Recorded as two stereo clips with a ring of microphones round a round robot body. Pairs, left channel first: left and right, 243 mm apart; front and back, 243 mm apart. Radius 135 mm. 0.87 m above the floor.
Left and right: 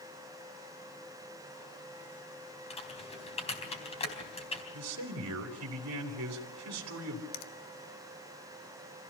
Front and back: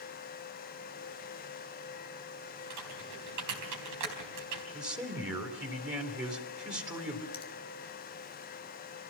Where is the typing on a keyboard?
155° left, 4 m.